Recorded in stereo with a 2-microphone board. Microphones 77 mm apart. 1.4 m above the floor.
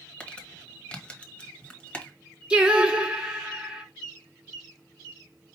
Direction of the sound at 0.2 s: 15° left (ahead or behind).